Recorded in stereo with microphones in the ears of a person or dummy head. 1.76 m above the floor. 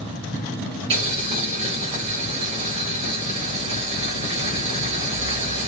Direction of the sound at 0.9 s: 25° right (ahead or behind).